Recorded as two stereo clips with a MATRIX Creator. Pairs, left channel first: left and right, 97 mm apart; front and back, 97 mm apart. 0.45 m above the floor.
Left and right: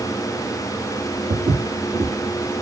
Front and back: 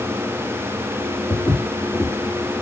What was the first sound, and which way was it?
Footsteps, 90° right.